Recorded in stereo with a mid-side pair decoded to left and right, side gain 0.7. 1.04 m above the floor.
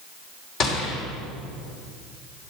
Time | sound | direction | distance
0.6 | a gunshot | 45° left | 3.5 m